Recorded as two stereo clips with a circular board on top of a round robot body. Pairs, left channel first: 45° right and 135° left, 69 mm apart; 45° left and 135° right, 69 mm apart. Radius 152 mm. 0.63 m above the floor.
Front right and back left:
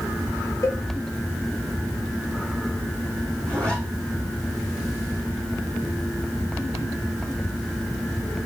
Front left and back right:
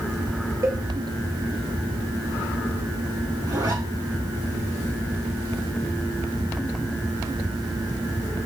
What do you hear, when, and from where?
0.6 s a cowbell: 85° right, 2.0 m
3.5 s a zipper: 120° right, 6 m